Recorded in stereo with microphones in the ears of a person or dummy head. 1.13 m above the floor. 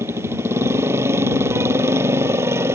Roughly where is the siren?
I don't hear a siren.